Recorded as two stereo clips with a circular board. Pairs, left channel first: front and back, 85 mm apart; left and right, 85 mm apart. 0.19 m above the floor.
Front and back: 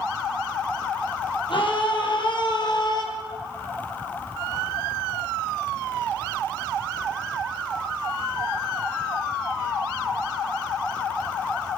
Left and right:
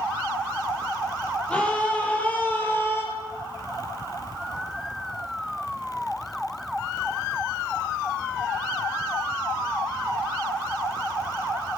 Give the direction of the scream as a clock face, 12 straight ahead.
12 o'clock.